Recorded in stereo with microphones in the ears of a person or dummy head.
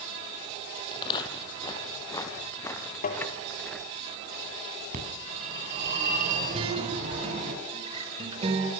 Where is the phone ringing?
45° right (ahead or behind), 9 m.